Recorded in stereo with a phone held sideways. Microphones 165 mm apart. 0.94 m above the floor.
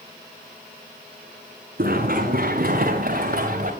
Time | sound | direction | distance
1.8 | running footsteps | 60° right (ahead or behind) | 3 m